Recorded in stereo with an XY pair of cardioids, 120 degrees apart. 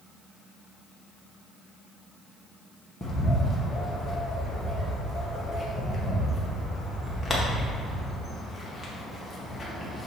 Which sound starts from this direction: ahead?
A bird, at 3.0 s.